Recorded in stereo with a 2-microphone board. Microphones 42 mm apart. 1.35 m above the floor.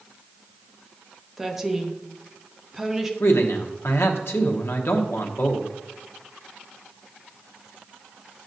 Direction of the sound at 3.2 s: 75° left (ahead or behind).